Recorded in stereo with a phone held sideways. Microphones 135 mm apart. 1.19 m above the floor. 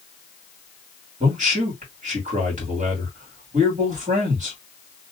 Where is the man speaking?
60° right (ahead or behind), 2 m.